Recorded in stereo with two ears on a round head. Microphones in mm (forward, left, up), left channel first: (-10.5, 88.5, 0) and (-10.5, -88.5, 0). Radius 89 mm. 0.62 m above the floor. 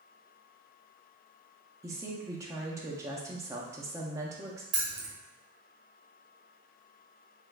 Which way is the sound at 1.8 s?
15° right (ahead or behind).